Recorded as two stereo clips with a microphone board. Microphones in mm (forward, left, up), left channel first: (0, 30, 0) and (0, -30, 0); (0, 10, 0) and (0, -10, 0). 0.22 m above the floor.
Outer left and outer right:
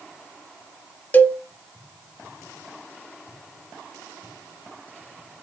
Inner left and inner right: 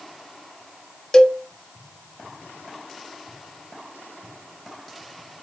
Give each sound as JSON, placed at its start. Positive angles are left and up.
{"t": 1.1, "sound": "a cowbell", "side_deg": 30, "distance_m": 0.6}